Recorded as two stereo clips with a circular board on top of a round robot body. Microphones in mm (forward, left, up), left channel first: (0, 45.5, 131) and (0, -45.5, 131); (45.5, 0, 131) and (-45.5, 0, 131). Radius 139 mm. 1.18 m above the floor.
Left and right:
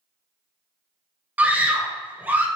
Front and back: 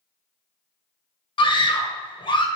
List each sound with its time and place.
1.4 s a scream: 20° right, 1.1 m